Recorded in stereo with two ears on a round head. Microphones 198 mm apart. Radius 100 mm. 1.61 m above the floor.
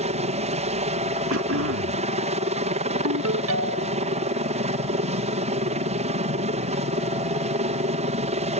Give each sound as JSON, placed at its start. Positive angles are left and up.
{"t": 0.0, "sound": "a helicopter", "side_deg": -30}
{"t": 1.3, "sound": "throat clearing", "side_deg": -70}
{"t": 3.0, "sound": "a ringtone", "side_deg": -70}